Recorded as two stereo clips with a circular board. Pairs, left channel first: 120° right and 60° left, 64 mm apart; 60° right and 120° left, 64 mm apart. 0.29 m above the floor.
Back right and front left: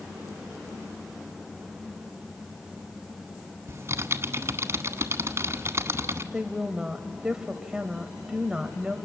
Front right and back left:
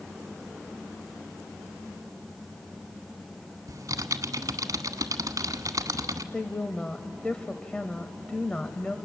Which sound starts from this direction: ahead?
A woman speaking, at 6.3 s.